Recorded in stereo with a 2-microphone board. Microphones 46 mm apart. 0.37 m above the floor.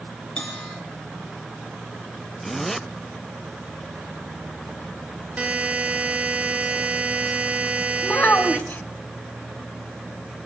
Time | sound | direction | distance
0.4 | a bell | 25° left (ahead or behind) | 5.5 m
2.4 | a zipper | 5° left (ahead or behind) | 0.7 m
5.4 | a buzzer | 30° right (ahead or behind) | 1.2 m
8.0 | a child speaking | 40° left (ahead or behind) | 1.8 m